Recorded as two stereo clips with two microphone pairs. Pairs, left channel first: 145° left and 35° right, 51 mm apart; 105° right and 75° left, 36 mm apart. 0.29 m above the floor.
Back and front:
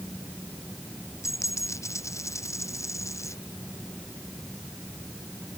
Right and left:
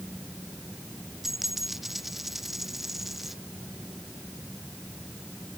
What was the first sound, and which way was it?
A dropped coin, 155° left.